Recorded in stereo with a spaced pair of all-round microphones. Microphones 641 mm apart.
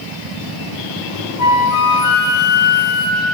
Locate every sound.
1.4 s a flute: 85° left, 0.6 m